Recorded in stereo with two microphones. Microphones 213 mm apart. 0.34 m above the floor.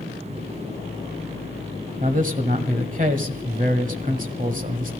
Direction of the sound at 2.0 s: 40° right (ahead or behind).